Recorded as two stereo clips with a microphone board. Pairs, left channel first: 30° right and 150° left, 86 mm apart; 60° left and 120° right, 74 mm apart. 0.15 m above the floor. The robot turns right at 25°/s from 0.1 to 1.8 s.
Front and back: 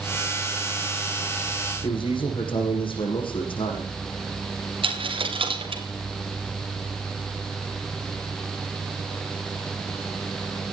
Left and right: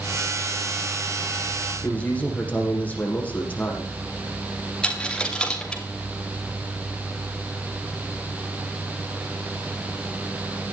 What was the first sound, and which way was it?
A man speaking, 10° right.